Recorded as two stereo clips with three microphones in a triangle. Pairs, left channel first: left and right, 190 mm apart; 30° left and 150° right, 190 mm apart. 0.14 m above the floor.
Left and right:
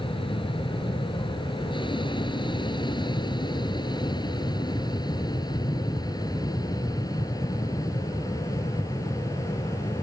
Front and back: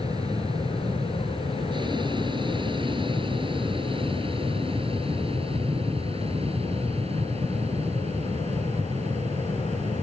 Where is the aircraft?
145° left; by 10.0 s 160° left.